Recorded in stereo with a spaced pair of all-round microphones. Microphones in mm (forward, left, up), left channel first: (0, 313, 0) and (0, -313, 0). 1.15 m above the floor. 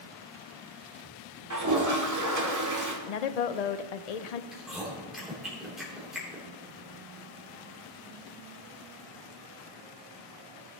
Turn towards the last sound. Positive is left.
turn(degrees=0)  # may be behind; listen again after turning